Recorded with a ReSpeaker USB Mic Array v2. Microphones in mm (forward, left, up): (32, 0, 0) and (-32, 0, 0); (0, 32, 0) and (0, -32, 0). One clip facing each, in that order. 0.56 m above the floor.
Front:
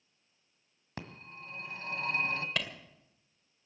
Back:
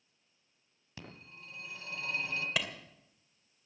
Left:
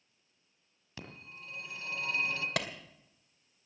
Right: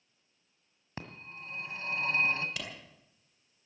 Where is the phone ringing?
40° right, 1.9 m.